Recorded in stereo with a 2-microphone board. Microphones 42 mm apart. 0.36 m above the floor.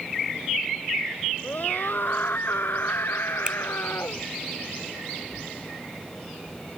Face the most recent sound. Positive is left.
turn(degrees=-20)  # may be behind; listen again after turning